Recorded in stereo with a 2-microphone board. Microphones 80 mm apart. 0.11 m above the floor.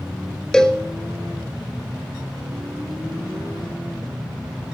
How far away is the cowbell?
About 0.5 m.